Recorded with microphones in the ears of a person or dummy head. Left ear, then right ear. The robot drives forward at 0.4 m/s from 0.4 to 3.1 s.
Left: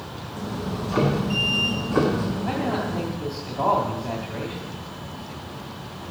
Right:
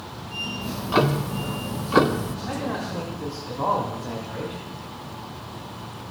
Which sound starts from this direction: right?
Ticking, at 0.6 s.